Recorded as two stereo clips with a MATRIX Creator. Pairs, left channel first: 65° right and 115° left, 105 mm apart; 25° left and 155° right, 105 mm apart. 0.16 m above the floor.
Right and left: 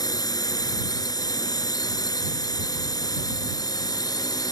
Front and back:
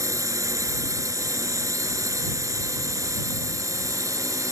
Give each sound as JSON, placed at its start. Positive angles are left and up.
{"t": 0.0, "sound": "a drone", "azimuth_deg": -105}